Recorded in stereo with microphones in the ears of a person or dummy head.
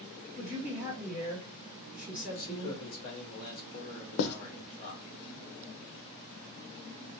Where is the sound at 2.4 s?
50° left (ahead or behind), 1.6 m.